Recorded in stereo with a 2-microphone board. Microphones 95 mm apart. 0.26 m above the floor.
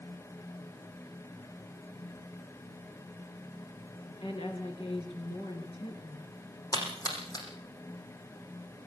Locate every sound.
4.2 s a woman speaking: 75° left (ahead or behind), 4 m
6.7 s a splash: 40° left (ahead or behind), 6.5 m